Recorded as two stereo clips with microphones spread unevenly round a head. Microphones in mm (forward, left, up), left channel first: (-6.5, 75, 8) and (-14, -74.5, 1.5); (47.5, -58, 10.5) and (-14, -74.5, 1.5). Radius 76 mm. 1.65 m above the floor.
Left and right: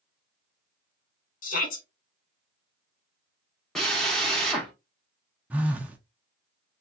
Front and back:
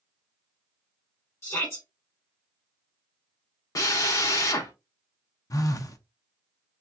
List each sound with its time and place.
1.4 s a shout: 65° left, 1.0 m
3.8 s a drill: straight ahead, 1.1 m
5.5 s a phone buzzing: 10° right, 0.7 m